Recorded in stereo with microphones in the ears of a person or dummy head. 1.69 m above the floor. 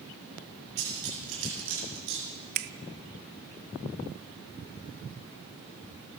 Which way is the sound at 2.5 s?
45° right (ahead or behind).